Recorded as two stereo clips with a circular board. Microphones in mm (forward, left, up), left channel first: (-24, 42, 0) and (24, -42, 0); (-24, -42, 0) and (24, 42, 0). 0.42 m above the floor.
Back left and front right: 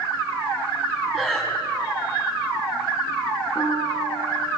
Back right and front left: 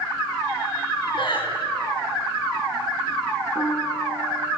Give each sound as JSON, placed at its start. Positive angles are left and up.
{"t": 1.1, "sound": "breathing", "azimuth_deg": -155, "distance_m": 6.0}
{"t": 3.5, "sound": "a piano", "azimuth_deg": 165, "distance_m": 5.0}